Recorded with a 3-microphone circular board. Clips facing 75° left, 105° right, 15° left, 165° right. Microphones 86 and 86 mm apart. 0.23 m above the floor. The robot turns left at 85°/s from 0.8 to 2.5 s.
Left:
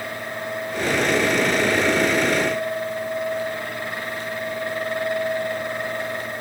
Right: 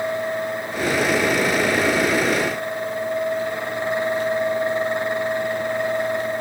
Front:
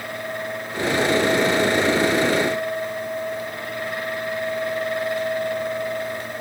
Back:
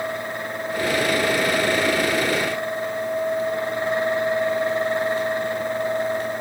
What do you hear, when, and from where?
Only background noise.